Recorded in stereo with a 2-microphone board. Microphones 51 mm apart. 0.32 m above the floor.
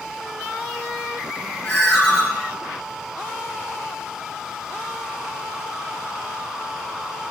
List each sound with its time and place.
1.6 s a ringtone: 25° left (ahead or behind), 1.8 m